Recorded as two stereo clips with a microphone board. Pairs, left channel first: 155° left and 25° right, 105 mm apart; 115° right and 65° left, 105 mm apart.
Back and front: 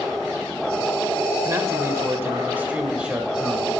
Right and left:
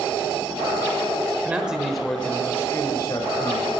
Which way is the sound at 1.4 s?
5° left.